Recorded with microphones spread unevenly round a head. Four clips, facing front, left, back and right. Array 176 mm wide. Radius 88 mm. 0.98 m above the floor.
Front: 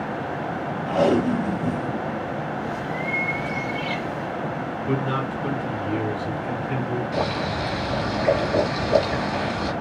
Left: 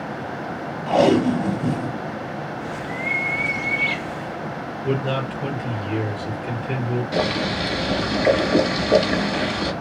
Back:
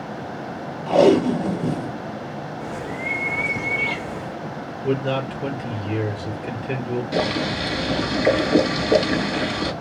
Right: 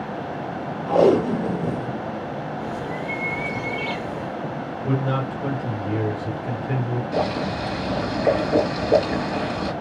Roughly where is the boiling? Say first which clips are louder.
Even, back 2 dB; behind left.